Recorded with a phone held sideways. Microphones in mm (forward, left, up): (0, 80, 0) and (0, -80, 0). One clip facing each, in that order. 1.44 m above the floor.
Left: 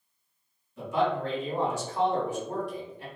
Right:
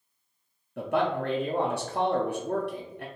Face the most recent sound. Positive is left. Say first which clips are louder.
# right 1 dB
turn(degrees=-65)  # may be behind; listen again after turning